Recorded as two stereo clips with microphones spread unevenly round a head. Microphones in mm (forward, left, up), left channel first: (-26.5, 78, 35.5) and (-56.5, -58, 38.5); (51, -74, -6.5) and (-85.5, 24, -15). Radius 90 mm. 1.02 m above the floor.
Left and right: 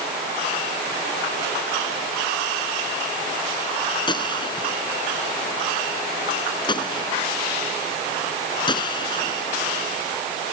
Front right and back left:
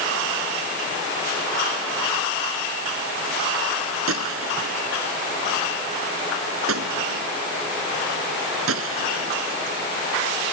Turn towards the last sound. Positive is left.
turn(degrees=135)